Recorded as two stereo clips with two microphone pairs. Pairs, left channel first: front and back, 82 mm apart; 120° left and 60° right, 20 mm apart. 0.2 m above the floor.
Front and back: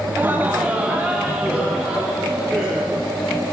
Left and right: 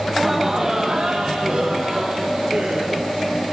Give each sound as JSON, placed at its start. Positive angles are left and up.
{"t": 0.1, "sound": "laughter", "azimuth_deg": -160, "distance_m": 1.0}